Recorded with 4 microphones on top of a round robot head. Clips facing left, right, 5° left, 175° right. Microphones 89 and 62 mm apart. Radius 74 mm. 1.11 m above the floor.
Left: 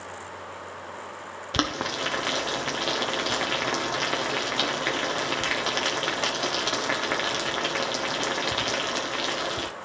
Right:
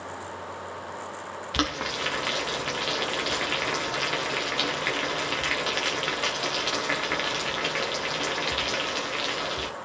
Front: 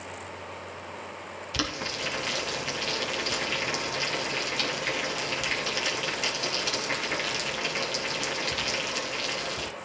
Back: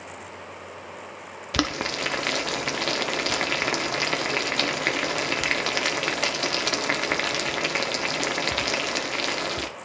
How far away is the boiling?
About 1.1 m.